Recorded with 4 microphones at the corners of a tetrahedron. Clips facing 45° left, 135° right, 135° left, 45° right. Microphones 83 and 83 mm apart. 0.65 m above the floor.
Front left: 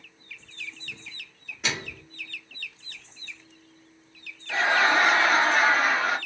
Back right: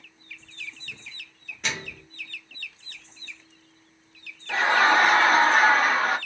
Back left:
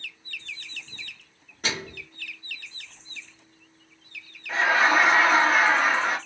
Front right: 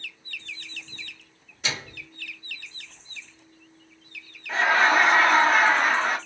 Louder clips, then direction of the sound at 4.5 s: Back right 2 dB, front right 1 dB; 140° right.